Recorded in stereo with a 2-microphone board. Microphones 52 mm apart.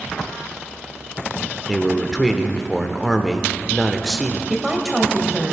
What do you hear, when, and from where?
1.7 s a man speaking: centre (ahead or behind), 0.9 m
4.5 s a woman speaking: 10° right (ahead or behind), 1.6 m